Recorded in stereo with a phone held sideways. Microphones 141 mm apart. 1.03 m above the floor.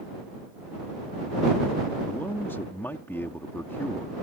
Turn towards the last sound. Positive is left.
turn(degrees=15)  # may be behind; listen again after turning